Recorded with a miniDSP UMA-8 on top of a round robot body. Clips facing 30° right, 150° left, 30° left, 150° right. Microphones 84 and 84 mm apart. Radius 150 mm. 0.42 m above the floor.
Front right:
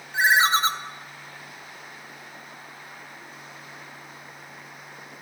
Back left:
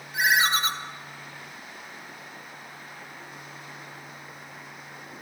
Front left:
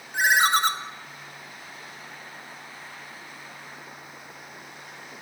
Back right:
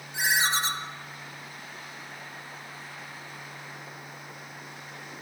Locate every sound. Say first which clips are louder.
0.1 s a ringtone: front right 3 dB, front left 6 dB; 20° left, 0.8 m